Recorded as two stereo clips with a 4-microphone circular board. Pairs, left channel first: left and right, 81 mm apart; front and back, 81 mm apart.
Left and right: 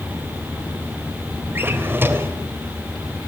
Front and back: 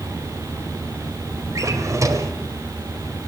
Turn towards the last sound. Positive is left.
turn(degrees=-145)